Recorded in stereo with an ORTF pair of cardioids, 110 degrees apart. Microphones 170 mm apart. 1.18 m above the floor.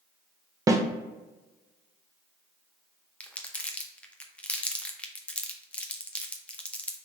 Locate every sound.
0.7 s a snare drum: 20° right, 0.6 m
3.2 s crumpling: 10° left, 0.7 m